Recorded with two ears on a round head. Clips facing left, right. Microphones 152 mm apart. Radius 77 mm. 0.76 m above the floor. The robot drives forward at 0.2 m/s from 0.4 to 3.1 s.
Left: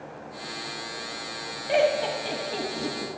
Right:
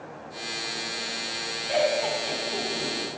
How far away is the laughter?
About 1.2 m.